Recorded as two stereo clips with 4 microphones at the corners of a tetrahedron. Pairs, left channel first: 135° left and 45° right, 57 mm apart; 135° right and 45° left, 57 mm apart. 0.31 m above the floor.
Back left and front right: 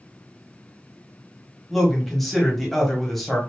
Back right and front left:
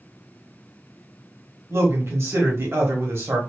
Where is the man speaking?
50° left, 1.3 m.